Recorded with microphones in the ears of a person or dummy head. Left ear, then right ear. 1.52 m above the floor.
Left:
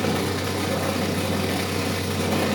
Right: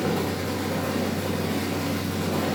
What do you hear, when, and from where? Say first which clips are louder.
0.0 s a fan: left 2 dB; 65° left (ahead or behind), 1.5 m